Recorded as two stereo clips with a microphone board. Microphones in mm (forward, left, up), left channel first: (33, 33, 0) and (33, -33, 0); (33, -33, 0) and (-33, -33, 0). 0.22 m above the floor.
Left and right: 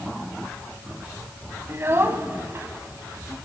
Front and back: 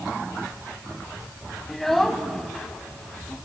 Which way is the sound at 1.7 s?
85° right.